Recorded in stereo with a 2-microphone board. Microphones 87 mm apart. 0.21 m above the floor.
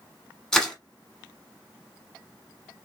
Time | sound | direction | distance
0.5 | crushing | 10° left (ahead or behind) | 1.1 m